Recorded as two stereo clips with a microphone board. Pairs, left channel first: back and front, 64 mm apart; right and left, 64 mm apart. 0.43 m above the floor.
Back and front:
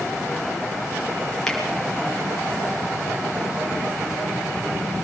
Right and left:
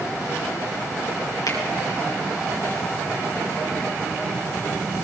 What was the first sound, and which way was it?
A finger snap, 95° right.